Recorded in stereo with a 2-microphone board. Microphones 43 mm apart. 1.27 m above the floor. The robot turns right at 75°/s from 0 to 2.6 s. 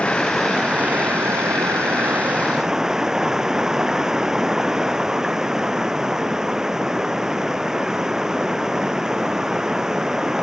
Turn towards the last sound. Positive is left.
turn(degrees=-10)